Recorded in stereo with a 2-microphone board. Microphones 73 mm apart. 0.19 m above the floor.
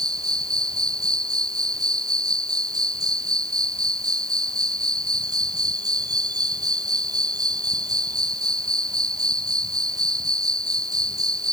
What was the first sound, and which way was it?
An insect, 60° right (ahead or behind).